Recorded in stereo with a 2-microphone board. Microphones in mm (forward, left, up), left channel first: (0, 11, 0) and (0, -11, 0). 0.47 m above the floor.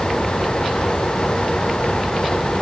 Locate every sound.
Only background noise.